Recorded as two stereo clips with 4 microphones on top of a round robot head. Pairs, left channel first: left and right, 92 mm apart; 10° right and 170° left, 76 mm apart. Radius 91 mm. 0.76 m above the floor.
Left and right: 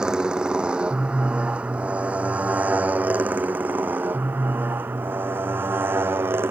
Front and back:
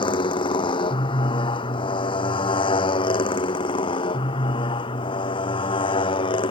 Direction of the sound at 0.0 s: 5° right.